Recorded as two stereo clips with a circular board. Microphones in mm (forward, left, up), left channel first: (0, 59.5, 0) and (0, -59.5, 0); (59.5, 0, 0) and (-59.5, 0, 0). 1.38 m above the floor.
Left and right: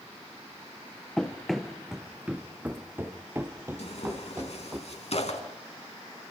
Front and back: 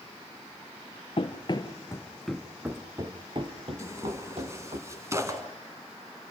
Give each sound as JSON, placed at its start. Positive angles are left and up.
{"t": 1.2, "sound": "running footsteps", "azimuth_deg": 5, "distance_m": 2.0}
{"t": 3.8, "sound": "tearing paper", "azimuth_deg": 115, "distance_m": 4.0}